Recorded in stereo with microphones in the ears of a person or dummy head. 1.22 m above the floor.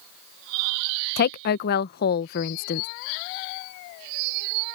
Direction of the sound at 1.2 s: 55° left (ahead or behind).